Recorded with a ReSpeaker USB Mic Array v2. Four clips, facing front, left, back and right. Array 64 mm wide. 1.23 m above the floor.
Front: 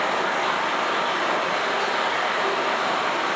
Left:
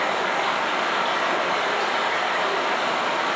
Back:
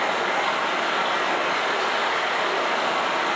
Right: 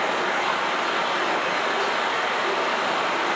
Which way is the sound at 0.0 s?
120° left.